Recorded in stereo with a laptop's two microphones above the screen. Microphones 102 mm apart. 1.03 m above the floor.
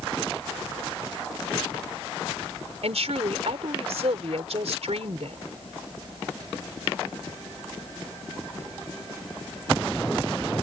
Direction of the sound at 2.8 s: 75° right (ahead or behind).